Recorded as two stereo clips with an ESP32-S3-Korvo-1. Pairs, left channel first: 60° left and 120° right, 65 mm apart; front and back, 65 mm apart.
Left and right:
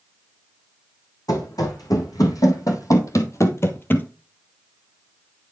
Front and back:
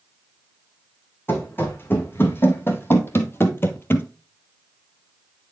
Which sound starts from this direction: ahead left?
Running footsteps, at 1.3 s.